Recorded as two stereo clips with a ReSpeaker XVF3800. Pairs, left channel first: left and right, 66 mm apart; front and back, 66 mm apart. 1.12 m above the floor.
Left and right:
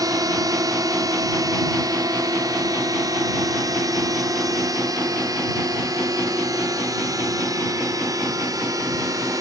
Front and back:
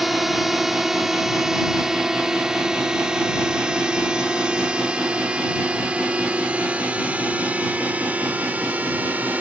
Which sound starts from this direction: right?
A drone, at 0.0 s.